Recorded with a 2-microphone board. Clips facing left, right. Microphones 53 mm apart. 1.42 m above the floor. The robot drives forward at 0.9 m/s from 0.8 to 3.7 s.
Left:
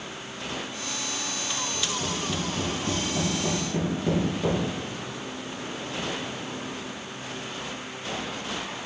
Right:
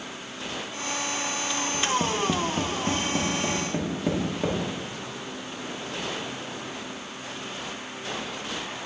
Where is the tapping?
75° right (ahead or behind), 0.7 m; by 4.6 s 25° right (ahead or behind), 1.7 m.